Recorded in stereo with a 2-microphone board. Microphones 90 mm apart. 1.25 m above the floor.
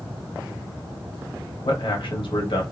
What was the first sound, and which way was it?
A man speaking, 70° left (ahead or behind).